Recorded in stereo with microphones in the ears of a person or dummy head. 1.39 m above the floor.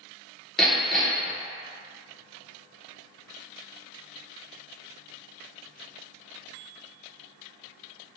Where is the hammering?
Centre (ahead or behind), 0.8 m.